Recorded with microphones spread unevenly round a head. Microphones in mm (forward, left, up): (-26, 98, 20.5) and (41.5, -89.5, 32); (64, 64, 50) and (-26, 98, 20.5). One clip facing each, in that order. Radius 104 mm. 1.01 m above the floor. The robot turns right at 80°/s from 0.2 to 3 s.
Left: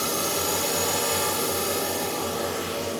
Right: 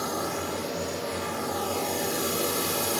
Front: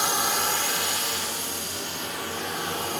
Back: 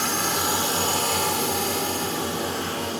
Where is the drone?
60° left; by 3.0 s 75° right.